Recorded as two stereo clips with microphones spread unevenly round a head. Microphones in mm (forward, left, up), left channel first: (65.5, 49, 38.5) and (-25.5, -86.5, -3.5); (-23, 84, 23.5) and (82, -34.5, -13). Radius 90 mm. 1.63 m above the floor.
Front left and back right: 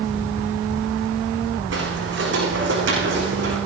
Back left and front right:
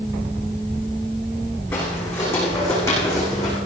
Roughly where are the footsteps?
Behind right.